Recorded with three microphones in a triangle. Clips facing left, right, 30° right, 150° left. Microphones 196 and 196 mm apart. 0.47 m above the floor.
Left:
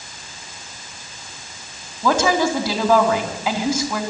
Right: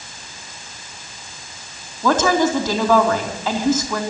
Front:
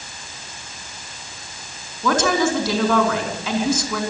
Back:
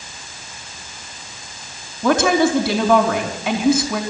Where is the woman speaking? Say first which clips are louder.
Right 1 dB, back 3 dB; 165° left, 4 m.